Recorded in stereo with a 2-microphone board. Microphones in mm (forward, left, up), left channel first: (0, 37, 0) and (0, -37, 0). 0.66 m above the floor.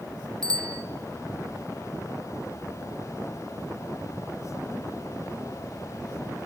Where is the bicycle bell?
60° right (ahead or behind), 3 m.